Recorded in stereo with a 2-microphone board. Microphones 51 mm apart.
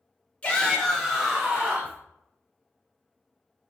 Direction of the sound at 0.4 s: 25° left (ahead or behind).